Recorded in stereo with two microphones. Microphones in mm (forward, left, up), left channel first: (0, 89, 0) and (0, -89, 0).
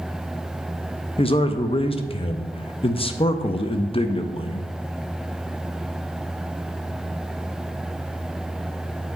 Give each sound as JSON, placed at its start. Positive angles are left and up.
{"t": 1.2, "sound": "a man speaking", "side_deg": 30, "distance_m": 0.6}